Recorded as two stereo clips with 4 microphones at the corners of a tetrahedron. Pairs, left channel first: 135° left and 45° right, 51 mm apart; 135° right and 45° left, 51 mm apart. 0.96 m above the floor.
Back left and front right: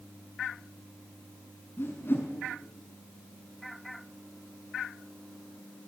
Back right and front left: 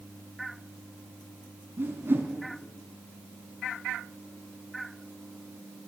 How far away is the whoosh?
About 4.5 m.